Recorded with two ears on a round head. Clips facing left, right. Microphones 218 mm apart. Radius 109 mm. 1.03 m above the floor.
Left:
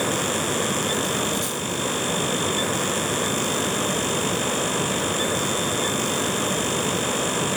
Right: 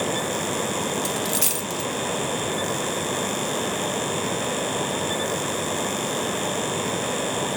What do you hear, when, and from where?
1.1 s a dropped coin: 40° right (ahead or behind), 1.0 m